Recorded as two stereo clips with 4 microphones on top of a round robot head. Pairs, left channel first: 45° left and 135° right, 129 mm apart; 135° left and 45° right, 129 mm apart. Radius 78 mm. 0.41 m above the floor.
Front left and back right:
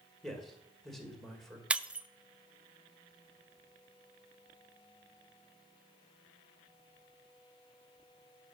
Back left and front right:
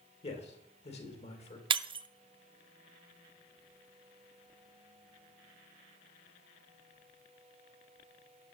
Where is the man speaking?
130° left, 2 m.